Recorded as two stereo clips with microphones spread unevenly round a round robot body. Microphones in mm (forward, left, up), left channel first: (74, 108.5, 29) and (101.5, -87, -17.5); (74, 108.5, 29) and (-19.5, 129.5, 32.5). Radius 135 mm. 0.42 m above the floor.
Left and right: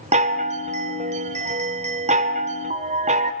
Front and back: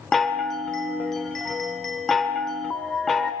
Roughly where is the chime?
Right.